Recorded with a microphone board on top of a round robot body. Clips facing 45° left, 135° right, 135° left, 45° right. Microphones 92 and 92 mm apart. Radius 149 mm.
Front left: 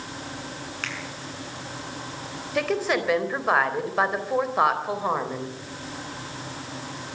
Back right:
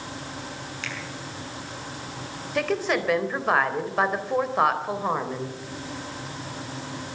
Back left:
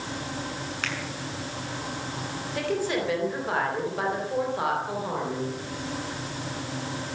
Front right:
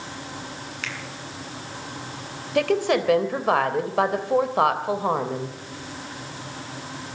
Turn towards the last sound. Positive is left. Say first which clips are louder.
# even, front right 7 dB
turn(degrees=-40)